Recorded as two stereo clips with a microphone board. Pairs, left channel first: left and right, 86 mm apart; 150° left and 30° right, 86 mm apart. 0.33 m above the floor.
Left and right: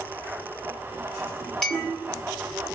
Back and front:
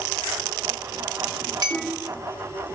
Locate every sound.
1.6 s a clink: 5° left, 1.4 m